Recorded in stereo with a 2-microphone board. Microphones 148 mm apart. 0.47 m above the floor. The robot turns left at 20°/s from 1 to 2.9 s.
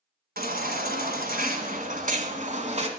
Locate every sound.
0.4 s a baby crying: 95° right, 1.5 m; by 2.9 s 135° right, 1.5 m